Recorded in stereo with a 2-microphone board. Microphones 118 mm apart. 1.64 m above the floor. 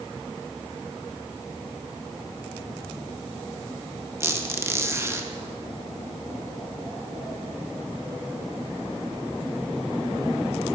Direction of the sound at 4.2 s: 20° right (ahead or behind).